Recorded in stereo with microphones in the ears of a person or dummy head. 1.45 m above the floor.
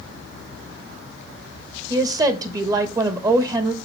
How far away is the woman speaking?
About 1.6 m.